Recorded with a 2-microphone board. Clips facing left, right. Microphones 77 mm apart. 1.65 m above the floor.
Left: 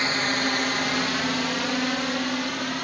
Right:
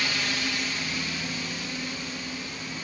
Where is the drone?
35° left (ahead or behind); by 2.8 s 70° left (ahead or behind).